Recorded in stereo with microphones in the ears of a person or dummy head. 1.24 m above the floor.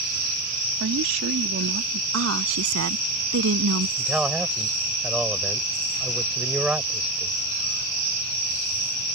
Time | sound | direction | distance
0.8 | a woman speaking | 70° right (ahead or behind) | ?
2.1 | a woman speaking | 85° right | ?
4.0 | a man speaking | 5° right (ahead or behind) | ?